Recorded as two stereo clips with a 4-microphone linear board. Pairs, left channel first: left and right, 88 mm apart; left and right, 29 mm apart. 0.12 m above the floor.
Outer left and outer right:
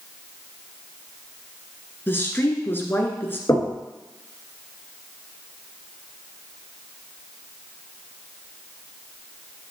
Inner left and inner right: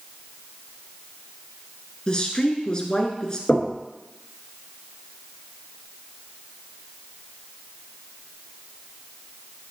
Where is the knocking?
35° left (ahead or behind), 1.8 m.